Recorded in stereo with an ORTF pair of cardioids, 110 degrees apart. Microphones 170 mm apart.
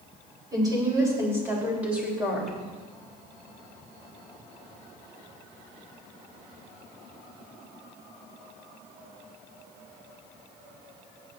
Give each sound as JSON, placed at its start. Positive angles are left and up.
{"t": 0.5, "sound": "a woman speaking", "azimuth_deg": -25, "distance_m": 5.5}